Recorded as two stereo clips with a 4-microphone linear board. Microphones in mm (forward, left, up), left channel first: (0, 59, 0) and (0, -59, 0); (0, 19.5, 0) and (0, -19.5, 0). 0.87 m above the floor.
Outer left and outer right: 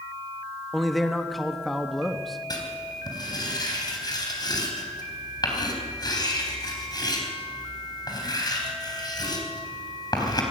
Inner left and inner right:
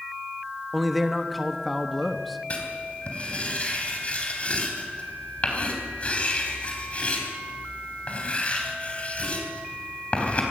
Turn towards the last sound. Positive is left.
turn(degrees=35)  # may be behind; listen again after turning